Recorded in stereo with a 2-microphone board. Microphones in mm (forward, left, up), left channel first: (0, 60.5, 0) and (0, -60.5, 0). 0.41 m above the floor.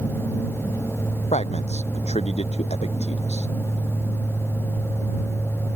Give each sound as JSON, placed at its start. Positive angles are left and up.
{"t": 1.3, "sound": "a man speaking", "side_deg": 70}